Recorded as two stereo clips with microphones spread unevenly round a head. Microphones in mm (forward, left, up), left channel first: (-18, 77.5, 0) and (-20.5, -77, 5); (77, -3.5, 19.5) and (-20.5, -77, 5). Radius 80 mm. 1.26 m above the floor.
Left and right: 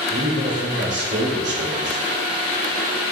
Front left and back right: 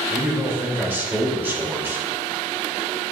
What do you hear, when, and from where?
0.1 s a man speaking: 70° right, 3.5 m